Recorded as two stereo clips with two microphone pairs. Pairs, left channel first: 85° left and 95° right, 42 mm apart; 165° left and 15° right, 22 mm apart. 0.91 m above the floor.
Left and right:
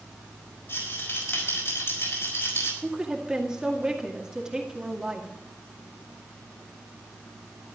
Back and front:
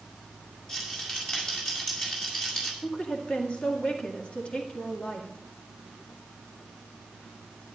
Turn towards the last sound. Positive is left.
turn(degrees=-165)